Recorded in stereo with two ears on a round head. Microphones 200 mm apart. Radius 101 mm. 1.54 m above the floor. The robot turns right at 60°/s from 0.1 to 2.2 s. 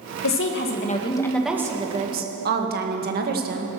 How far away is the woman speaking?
About 1.9 m.